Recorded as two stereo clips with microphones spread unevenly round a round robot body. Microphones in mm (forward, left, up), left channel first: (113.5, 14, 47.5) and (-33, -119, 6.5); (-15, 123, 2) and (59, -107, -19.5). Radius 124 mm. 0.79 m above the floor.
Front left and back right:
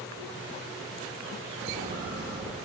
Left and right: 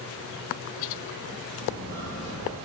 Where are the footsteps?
Straight behind, 1.2 m.